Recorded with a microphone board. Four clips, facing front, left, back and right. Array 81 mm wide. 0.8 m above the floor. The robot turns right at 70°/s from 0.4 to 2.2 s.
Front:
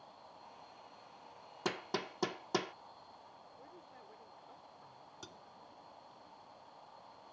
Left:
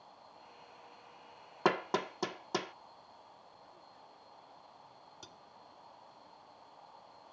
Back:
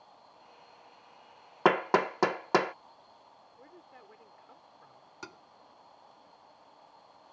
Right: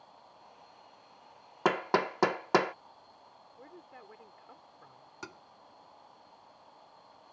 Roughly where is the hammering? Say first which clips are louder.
Right 4 dB, back 15 dB; behind.